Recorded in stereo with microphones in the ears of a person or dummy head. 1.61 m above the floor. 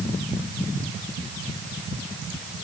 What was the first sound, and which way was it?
Only background noise.